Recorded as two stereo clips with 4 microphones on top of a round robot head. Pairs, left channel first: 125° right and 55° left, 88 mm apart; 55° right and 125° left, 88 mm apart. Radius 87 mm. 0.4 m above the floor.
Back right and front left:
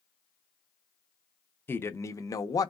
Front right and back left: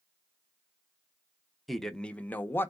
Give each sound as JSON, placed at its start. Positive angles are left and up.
{"t": 1.7, "sound": "a man speaking", "azimuth_deg": -140, "distance_m": 0.8}